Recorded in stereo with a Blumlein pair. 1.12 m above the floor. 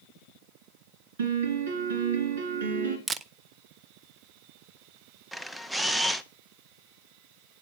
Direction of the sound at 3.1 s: 15° right.